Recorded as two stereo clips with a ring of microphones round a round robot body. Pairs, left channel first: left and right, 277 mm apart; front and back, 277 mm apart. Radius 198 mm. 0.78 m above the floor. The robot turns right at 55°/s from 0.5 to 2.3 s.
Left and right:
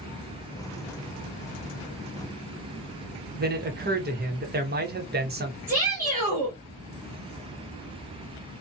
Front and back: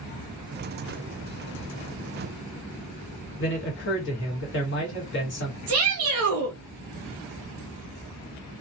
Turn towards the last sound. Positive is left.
turn(degrees=-170)